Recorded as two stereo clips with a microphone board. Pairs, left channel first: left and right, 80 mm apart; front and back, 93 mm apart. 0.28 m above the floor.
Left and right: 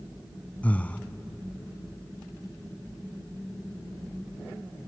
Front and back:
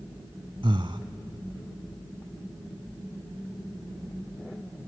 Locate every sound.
0.6 s breathing: 160° left, 0.7 m